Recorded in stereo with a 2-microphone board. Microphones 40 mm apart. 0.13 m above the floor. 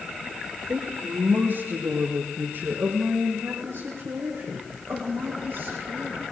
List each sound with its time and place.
0.7 s a woman speaking: 65° right (ahead or behind), 4 m